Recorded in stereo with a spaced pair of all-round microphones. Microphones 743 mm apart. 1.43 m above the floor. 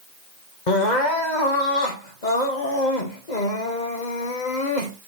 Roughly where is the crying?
Left.